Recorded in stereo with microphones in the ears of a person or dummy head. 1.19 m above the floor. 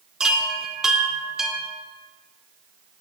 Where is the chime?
5° right (ahead or behind), 0.6 m.